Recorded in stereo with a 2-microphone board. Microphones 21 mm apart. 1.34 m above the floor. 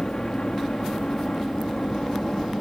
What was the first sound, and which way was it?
A helicopter, 35° left (ahead or behind).